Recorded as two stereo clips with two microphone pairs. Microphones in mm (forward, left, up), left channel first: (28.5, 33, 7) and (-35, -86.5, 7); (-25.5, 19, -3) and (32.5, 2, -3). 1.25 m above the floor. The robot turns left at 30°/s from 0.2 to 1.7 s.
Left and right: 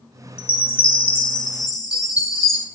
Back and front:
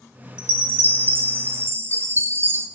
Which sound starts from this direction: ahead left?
A chime, at 0.4 s.